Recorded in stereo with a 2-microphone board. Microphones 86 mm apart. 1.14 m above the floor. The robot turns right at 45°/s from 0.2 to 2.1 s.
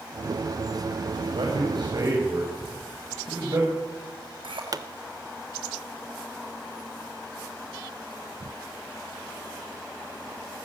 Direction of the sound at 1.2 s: 85° right.